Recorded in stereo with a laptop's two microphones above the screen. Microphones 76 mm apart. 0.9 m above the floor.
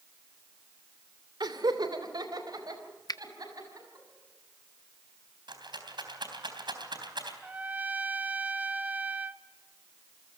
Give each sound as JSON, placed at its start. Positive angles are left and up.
{"t": 1.4, "sound": "laughter", "side_deg": -65, "distance_m": 2.5}
{"t": 3.1, "sound": "a finger snap", "side_deg": 55, "distance_m": 0.8}
{"t": 5.5, "sound": "a rattle", "side_deg": -70, "distance_m": 3.5}
{"t": 7.4, "sound": "a trumpet", "side_deg": -20, "distance_m": 0.9}